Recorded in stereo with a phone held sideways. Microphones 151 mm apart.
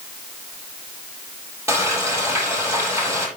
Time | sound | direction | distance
1.7 | frying | 20° right (ahead or behind) | 8 m